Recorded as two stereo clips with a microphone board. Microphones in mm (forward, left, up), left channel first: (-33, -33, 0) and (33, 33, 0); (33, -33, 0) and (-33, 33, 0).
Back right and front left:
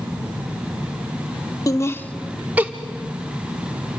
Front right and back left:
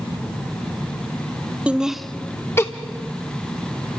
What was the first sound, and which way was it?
Laughter, 155° right.